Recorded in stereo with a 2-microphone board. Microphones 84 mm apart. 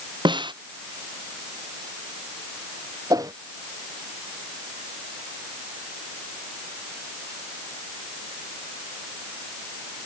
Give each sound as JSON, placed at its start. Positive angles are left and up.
{"t": 0.2, "sound": "a snare drum", "side_deg": -70}
{"t": 3.1, "sound": "a whoosh", "side_deg": -45}